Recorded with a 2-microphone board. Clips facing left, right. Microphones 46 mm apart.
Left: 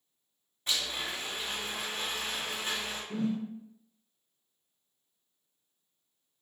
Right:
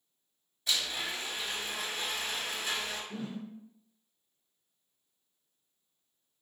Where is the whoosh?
65° left (ahead or behind), 1.0 m.